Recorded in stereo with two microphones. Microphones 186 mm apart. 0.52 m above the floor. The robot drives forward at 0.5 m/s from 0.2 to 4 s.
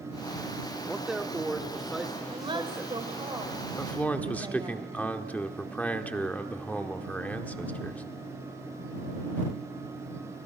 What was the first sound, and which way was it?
A man speaking, 5° right (ahead or behind).